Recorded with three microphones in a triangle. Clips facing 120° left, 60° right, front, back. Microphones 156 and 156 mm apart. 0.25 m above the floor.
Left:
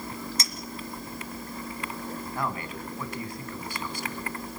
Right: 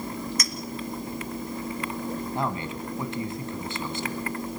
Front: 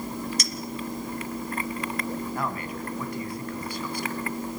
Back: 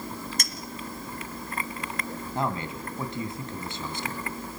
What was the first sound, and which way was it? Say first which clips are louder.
A clink: right 4 dB, front 4 dB; 175° left.